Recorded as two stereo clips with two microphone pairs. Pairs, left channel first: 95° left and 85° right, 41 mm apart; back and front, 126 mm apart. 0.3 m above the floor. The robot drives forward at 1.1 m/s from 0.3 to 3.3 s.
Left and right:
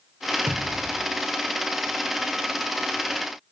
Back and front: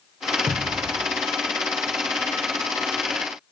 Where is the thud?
60° right, 4.5 m; by 1.1 s 65° right, 4.5 m.